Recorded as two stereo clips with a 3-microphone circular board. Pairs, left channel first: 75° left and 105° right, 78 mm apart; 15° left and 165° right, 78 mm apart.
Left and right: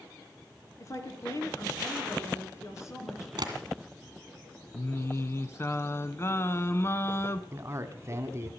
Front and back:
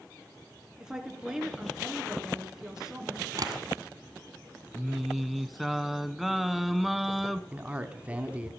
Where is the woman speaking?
115° left, 3 m.